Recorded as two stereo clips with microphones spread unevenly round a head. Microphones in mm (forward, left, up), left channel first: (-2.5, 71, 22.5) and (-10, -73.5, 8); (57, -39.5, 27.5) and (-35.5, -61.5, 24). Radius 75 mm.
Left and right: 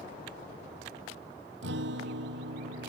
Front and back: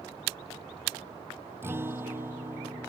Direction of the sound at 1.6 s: 100° right.